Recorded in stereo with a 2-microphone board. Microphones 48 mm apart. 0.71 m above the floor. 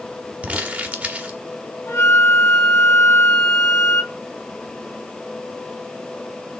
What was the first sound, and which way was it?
Crumpling, 35° right (ahead or behind).